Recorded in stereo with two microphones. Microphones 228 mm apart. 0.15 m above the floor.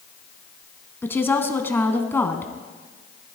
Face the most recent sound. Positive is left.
turn(degrees=10)  # may be behind; listen again after turning